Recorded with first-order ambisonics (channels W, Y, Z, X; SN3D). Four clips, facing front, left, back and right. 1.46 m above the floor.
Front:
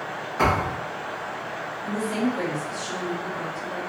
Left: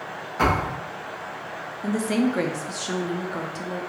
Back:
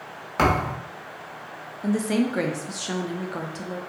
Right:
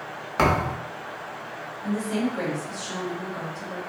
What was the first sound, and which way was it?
A thud, 135° right.